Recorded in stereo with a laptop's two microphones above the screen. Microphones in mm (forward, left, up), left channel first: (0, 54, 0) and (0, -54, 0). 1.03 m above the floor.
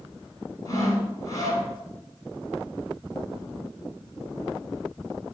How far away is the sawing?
About 6.5 m.